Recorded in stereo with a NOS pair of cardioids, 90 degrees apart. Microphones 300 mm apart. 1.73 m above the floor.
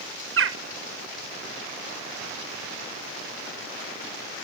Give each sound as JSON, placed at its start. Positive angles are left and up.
{"t": 0.4, "sound": "a bird", "azimuth_deg": -45, "distance_m": 1.4}